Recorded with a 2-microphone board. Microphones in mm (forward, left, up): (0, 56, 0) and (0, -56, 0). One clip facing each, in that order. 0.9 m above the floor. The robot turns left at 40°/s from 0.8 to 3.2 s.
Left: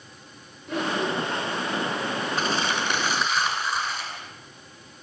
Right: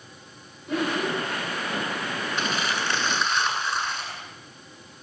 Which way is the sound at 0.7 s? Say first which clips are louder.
Even; 5° right (ahead or behind).